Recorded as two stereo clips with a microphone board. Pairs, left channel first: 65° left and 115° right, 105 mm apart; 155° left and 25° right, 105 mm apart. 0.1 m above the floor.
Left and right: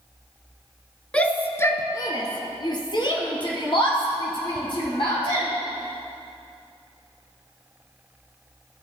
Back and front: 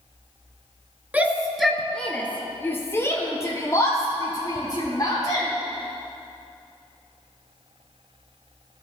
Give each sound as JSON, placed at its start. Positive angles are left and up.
{"t": 1.1, "sound": "a shout", "azimuth_deg": 15, "distance_m": 1.1}